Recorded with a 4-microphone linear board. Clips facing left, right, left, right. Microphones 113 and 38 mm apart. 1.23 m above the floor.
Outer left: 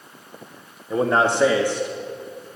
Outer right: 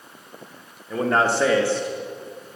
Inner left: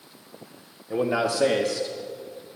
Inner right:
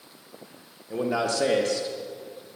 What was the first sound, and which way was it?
A man speaking, 20° left (ahead or behind).